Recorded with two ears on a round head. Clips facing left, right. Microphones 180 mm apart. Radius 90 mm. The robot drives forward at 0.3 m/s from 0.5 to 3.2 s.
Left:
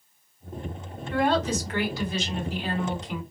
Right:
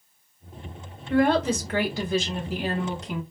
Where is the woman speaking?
45° right (ahead or behind), 1.7 m; by 3.2 s 35° right (ahead or behind), 2 m.